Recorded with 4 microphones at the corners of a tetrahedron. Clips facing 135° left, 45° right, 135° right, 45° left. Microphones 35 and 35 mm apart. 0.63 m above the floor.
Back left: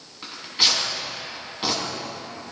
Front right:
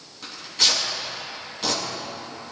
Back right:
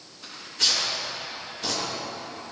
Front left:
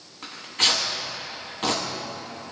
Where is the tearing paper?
70° left, 6.5 m.